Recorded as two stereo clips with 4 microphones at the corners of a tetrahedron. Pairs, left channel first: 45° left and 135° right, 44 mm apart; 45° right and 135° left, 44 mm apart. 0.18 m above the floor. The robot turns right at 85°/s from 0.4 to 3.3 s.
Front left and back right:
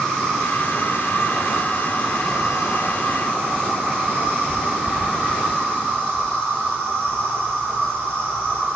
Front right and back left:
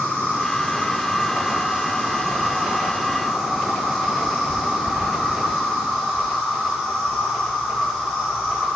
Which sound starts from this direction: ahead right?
An insect, at 0.0 s.